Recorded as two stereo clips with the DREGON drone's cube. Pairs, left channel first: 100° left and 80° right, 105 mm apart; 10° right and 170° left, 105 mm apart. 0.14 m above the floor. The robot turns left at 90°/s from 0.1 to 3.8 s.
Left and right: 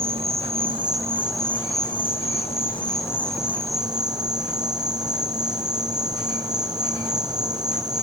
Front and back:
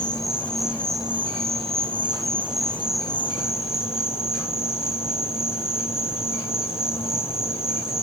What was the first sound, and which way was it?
An insect, 55° right.